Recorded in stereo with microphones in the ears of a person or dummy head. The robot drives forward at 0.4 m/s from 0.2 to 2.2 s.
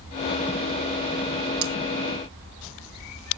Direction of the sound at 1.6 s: 70° right (ahead or behind).